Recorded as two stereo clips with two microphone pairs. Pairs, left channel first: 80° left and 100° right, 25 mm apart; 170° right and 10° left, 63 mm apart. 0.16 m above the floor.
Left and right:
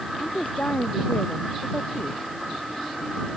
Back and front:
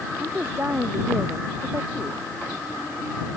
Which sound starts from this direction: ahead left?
A woman speaking, at 0.2 s.